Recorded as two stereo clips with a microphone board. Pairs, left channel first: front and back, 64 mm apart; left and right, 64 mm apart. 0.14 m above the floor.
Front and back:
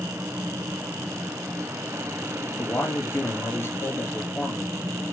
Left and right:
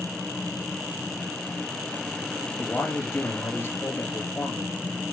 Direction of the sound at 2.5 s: 45° left.